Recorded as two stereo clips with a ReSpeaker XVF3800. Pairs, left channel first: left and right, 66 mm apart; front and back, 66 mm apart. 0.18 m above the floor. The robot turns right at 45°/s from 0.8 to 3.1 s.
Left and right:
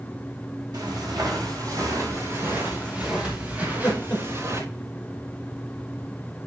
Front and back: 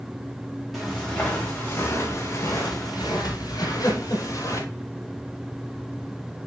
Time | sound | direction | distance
0.7 | footsteps | 90° right | 5.5 m
3.6 | laughter | 25° left | 6 m